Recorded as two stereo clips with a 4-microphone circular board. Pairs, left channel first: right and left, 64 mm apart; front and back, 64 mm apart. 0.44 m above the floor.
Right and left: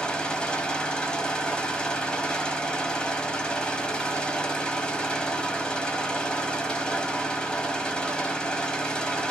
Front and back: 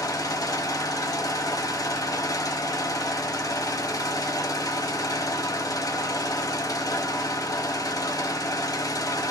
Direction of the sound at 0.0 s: 15° right.